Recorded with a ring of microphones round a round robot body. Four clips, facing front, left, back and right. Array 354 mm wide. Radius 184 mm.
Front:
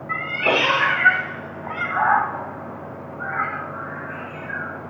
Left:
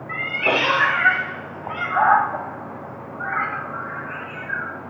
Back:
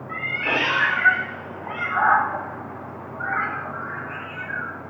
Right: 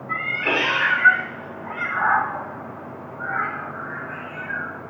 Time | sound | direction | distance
0.1 | a cat meowing | 15° left | 1.3 m